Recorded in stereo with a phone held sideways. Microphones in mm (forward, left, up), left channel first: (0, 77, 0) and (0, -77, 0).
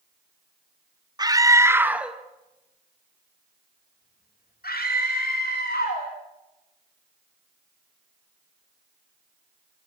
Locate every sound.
1.2 s a scream: 25° right (ahead or behind), 2.5 m; by 6.1 s 90° left, 4 m